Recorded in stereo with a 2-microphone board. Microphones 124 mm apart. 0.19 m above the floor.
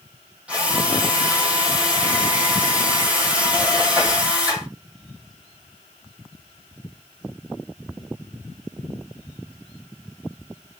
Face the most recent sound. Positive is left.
turn(degrees=-10)  # may be behind; listen again after turning